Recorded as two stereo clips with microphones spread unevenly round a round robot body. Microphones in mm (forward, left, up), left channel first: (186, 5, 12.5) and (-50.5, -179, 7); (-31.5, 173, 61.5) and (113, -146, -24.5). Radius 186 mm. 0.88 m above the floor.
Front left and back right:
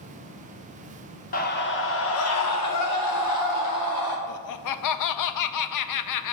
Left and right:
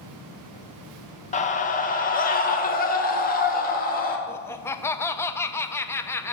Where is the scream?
35° left, 0.9 m; by 4.2 s 45° left, 2.0 m.